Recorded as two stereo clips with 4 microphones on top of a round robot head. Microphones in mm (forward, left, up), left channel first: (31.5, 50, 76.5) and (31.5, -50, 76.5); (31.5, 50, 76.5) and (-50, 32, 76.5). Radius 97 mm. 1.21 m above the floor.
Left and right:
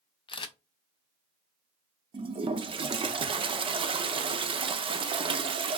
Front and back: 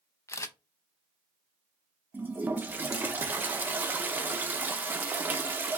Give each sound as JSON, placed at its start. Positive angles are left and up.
{"t": 0.3, "sound": "a camera shutter", "azimuth_deg": 60, "distance_m": 0.7}
{"t": 2.1, "sound": "a toilet flushing", "azimuth_deg": -105, "distance_m": 0.6}